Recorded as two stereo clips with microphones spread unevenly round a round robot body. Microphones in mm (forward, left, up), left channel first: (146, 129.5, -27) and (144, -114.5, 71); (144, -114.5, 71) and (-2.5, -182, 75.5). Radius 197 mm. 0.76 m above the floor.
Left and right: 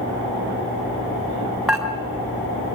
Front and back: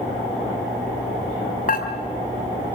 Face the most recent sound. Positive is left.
turn(degrees=-5)